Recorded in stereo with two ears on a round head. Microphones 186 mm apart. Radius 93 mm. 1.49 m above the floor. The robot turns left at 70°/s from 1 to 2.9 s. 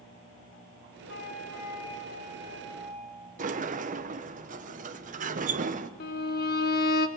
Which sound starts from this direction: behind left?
A flute, at 1.1 s.